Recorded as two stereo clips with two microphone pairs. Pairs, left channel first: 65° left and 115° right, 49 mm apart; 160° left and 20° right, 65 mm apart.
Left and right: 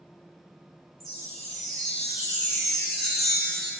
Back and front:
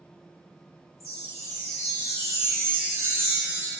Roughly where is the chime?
Ahead right.